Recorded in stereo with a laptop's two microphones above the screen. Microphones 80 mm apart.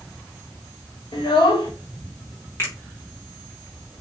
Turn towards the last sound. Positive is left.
turn(degrees=30)  # may be behind; listen again after turning